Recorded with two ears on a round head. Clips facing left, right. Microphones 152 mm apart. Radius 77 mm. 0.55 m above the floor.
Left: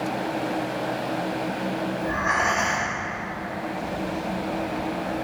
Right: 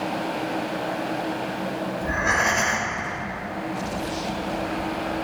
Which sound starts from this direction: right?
Breathing, at 2.0 s.